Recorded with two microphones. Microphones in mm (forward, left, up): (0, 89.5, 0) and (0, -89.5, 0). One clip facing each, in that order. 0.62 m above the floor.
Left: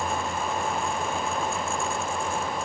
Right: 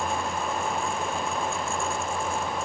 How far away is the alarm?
I don't hear an alarm.